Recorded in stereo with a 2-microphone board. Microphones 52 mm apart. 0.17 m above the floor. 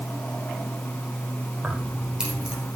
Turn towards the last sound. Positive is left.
turn(degrees=-15)  # may be behind; listen again after turning